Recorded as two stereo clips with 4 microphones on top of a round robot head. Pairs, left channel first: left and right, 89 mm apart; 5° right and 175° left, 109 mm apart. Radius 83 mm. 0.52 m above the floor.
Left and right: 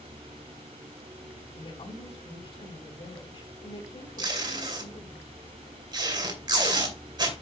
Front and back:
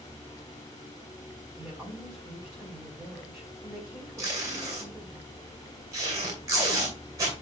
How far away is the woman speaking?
About 3.5 m.